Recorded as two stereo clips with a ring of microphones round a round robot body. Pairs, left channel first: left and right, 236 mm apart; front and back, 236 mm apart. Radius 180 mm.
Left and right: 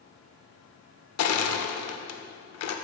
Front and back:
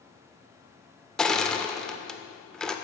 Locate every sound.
1.2 s crushing: 90° left, 0.6 m